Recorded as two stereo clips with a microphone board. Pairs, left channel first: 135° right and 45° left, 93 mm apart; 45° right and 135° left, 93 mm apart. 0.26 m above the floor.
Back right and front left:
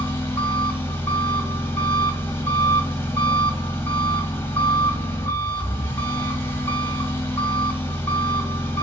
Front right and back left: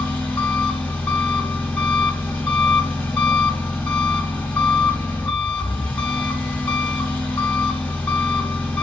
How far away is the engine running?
About 1.0 m.